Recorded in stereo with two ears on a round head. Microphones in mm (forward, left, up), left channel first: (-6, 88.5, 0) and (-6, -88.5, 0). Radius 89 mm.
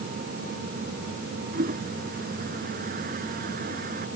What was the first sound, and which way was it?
A toilet flushing, 45° right (ahead or behind).